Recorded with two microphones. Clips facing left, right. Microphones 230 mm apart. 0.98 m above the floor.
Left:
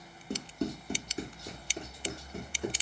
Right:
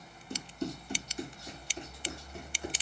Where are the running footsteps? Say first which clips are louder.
Left 3 dB; 55° left (ahead or behind), 2 m; by 2.7 s 50° left (ahead or behind), 3 m.